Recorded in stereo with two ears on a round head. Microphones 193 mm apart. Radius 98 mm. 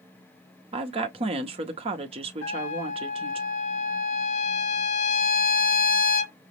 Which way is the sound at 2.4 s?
70° left (ahead or behind).